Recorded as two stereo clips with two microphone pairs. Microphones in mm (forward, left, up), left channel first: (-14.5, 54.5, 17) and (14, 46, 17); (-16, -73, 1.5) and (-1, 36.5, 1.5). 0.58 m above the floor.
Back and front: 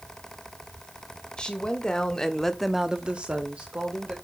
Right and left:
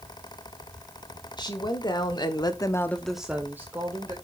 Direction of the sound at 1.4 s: 145° right.